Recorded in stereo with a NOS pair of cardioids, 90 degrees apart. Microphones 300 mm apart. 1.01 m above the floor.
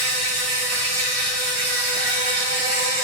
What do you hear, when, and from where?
0.0 s an insect: 50° right, 1.5 m